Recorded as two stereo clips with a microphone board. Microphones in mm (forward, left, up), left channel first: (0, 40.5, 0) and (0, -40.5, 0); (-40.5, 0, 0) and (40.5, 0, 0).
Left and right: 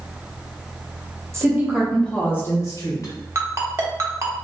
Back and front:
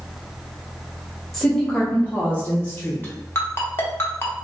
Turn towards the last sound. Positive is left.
turn(degrees=-130)